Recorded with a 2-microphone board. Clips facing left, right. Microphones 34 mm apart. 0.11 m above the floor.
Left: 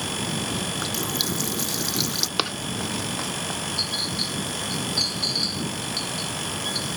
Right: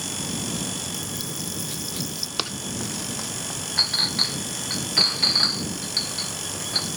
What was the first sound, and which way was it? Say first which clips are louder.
A running tap: left 5 dB; 70° left (ahead or behind).